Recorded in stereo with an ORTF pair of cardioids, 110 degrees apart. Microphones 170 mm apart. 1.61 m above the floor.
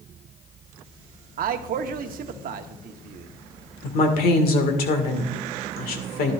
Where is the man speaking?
60° right, 1.0 m.